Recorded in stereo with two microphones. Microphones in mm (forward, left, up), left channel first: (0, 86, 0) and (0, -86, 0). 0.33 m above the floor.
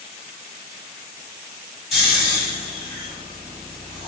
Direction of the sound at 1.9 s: Centre (ahead or behind).